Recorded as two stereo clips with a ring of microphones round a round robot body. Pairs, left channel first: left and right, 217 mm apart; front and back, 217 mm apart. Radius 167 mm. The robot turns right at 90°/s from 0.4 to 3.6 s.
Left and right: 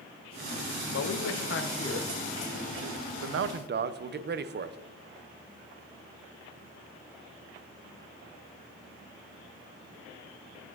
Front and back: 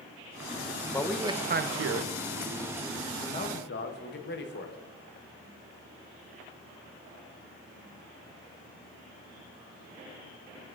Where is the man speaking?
75° left, 0.6 m; by 4.8 s 45° right, 0.6 m.